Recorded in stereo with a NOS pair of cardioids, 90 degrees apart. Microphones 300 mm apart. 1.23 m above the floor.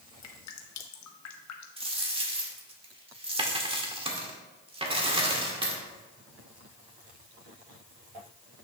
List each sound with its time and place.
0.2 s dripping: 65° left, 1.1 m
1.8 s a dropped coin: 20° right, 1.8 m